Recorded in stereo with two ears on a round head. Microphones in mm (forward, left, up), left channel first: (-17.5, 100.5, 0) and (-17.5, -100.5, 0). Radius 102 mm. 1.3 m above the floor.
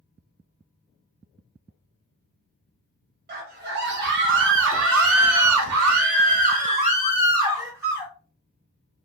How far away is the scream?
About 1.6 m.